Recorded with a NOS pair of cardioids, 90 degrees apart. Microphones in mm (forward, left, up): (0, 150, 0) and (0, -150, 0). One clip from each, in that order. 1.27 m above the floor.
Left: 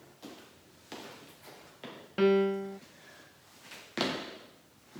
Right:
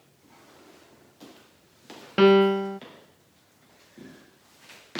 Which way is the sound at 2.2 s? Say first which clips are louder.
Right 8 dB; 55° right.